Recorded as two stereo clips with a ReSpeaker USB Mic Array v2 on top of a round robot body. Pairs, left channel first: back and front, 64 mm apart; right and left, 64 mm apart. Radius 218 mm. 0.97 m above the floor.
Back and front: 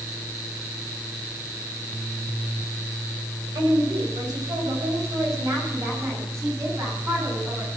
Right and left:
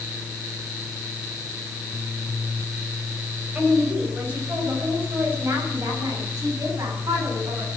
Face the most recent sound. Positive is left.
turn(degrees=50)